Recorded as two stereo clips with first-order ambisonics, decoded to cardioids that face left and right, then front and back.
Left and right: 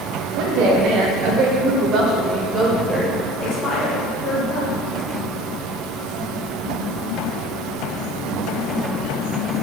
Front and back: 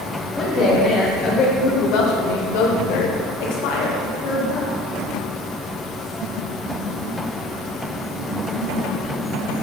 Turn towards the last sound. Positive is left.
turn(degrees=30)